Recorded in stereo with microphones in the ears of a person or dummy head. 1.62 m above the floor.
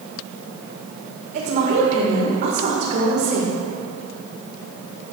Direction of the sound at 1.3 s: 50° right (ahead or behind).